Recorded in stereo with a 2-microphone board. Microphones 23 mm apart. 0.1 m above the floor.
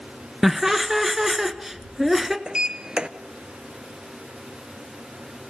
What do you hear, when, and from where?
0.4 s laughter: 10° right (ahead or behind), 1.2 m
2.5 s a sliding door: 35° right (ahead or behind), 0.7 m